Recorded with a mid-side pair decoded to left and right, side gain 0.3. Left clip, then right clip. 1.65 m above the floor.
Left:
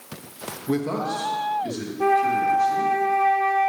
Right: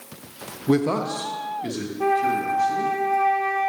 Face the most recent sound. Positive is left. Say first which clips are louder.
# left 2 dB
turn(degrees=25)